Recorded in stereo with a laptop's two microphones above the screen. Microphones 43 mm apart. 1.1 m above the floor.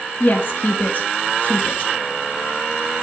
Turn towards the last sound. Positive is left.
turn(degrees=45)  # may be behind; listen again after turning